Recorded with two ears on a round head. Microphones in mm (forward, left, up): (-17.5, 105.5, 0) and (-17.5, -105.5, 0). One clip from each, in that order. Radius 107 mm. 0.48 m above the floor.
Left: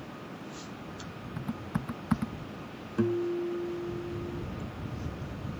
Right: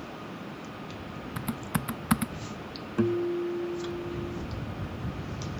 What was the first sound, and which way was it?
Typing on a keyboard, 70° right (ahead or behind).